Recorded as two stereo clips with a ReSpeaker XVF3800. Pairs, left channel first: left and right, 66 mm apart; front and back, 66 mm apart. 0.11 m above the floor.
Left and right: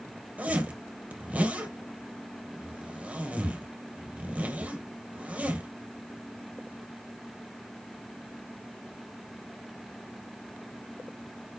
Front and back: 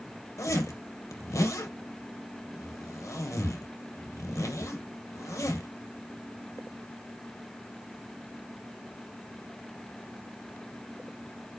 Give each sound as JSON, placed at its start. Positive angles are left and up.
{"t": 0.4, "sound": "a zipper", "azimuth_deg": -25, "distance_m": 2.0}